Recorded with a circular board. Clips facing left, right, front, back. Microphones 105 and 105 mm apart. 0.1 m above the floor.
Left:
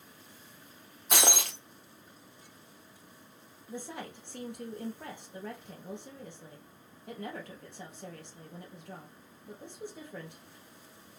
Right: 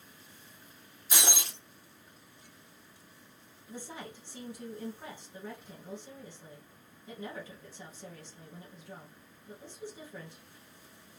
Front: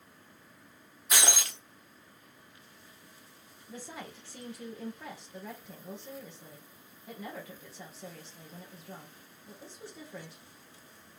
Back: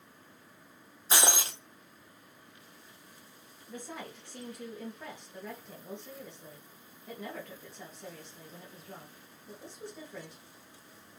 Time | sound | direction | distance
1.1 | breaking glass | 115° left | 1.0 m
3.7 | a woman speaking | 90° left | 2.5 m